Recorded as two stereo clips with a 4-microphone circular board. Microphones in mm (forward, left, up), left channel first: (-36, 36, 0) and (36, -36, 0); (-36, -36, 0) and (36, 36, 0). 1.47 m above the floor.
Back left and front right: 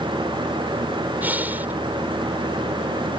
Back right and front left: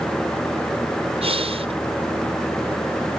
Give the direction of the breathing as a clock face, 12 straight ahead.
11 o'clock.